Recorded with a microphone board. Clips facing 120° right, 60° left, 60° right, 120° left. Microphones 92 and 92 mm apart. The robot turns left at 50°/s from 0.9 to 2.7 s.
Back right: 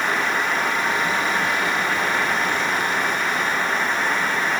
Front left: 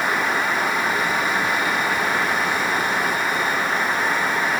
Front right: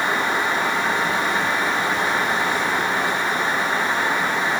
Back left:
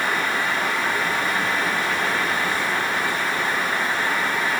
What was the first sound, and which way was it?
Only background noise.